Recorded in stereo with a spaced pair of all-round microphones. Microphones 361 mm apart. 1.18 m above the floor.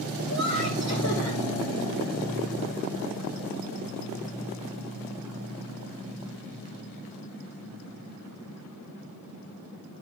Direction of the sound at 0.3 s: 45° left (ahead or behind).